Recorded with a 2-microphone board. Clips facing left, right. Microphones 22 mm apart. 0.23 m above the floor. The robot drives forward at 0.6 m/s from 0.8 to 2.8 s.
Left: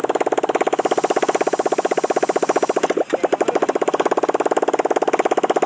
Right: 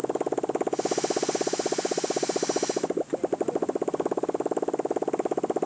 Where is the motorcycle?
60° left (ahead or behind); by 5.7 s 70° left (ahead or behind).